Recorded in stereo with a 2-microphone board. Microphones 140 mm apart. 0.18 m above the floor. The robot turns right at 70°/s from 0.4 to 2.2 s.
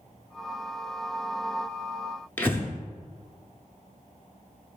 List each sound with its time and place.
2.4 s breathing: 15° left (ahead or behind), 0.7 m